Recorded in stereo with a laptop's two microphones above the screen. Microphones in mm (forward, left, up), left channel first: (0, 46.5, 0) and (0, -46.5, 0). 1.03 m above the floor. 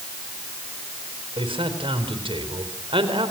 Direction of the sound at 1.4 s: 70° right (ahead or behind).